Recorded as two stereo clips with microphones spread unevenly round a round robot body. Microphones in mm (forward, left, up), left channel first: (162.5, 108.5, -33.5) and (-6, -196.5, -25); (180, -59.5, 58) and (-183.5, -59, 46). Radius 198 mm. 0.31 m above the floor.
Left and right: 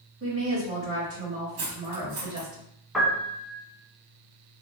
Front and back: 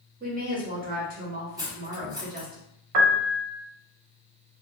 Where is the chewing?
No chewing in this recording.